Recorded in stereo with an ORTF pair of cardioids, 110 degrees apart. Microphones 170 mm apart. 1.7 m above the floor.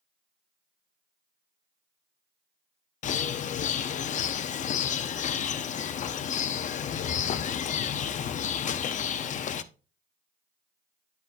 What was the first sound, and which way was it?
A bird, 45° left.